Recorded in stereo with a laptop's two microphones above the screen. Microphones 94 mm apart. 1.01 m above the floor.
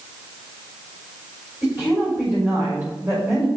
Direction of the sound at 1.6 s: 30° right (ahead or behind).